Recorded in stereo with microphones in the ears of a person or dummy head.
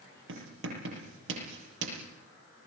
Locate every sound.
0.3 s writing: 75° right (ahead or behind), 7 m